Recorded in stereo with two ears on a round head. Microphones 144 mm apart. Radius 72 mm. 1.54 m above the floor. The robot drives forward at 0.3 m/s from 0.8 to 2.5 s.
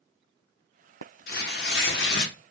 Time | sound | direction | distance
1.3 | tearing paper | 60° left (ahead or behind) | 0.7 m